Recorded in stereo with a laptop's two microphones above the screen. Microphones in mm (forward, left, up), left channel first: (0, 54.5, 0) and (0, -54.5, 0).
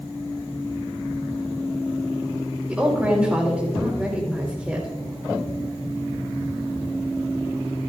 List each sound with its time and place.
2.7 s a woman speaking: 10° right (ahead or behind), 4 m